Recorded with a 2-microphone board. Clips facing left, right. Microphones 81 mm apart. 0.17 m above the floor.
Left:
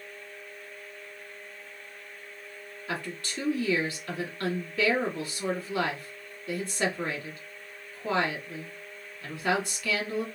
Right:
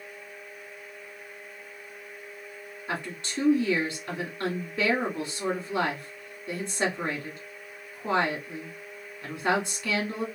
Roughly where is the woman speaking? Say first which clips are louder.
Right 1 dB; right.